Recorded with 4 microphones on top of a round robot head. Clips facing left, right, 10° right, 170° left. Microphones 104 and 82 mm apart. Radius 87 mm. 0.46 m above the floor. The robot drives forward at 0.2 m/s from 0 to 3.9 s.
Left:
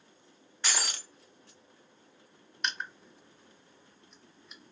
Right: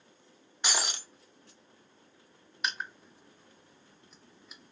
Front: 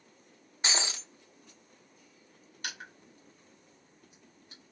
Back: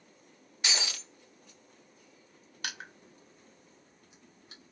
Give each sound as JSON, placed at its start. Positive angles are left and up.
{"t": 0.6, "sound": "breaking glass", "azimuth_deg": -35, "distance_m": 0.5}
{"t": 2.6, "sound": "crushing", "azimuth_deg": -175, "distance_m": 0.5}